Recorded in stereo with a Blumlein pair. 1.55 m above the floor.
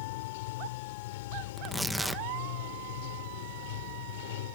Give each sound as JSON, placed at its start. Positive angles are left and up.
{"t": 0.0, "sound": "running water", "azimuth_deg": 55}
{"t": 1.6, "sound": "tearing paper", "azimuth_deg": -5}